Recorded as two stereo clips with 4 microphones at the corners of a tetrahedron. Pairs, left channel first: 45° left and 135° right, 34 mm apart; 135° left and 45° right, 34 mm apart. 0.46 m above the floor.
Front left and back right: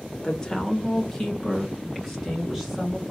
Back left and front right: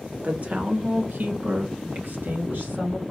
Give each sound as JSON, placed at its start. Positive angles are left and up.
{"t": 0.2, "sound": "a woman speaking", "azimuth_deg": -15, "distance_m": 1.2}